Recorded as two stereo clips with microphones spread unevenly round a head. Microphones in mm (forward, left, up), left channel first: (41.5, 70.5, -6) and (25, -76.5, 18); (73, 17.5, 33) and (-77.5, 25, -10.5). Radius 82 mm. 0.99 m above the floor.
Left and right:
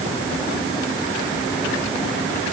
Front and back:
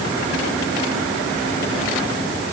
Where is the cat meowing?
No cat meowing in this recording.